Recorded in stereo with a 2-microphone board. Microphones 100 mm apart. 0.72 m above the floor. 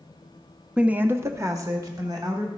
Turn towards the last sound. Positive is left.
turn(degrees=-45)  # may be behind; listen again after turning